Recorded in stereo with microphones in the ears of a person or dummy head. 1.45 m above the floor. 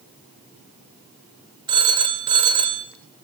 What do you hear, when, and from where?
1.7 s a phone ringing: 25° right (ahead or behind), 1.0 m